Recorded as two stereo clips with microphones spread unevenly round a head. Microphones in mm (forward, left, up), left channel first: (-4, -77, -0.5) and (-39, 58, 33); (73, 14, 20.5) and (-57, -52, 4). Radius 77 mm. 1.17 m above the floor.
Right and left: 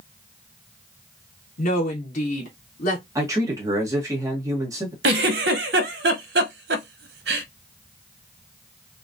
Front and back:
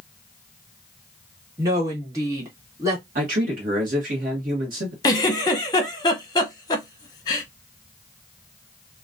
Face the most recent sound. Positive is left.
turn(degrees=95)